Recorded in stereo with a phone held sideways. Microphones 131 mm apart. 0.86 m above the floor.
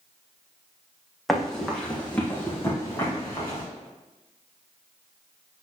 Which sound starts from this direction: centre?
Running footsteps, at 1.3 s.